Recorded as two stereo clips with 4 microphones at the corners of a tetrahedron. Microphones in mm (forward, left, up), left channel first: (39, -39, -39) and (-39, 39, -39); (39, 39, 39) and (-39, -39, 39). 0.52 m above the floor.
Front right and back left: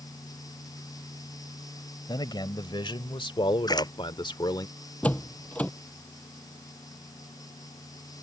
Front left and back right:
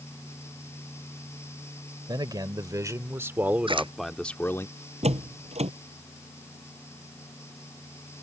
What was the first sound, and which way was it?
A man speaking, 90° right.